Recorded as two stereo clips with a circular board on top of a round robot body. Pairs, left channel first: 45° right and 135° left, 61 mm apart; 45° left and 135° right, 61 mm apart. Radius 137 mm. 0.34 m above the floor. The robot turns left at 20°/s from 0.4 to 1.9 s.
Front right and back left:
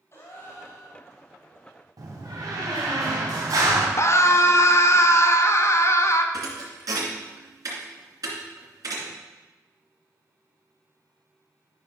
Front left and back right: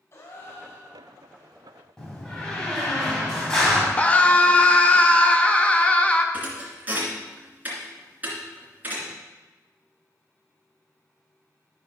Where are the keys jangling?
I don't hear keys jangling.